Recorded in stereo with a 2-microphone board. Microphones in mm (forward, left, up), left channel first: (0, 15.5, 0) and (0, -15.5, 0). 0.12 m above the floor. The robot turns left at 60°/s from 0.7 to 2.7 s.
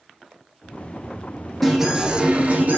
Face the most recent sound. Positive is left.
turn(degrees=-65)